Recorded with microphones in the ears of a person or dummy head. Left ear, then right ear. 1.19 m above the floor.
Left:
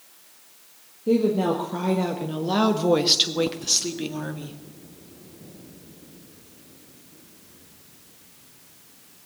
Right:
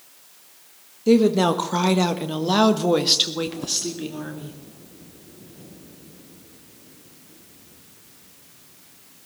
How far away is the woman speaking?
About 1.4 m.